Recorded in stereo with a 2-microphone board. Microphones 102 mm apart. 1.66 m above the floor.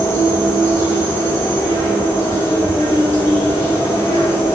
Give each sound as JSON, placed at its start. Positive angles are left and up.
{"t": 0.0, "sound": "an insect", "side_deg": 25, "distance_m": 0.8}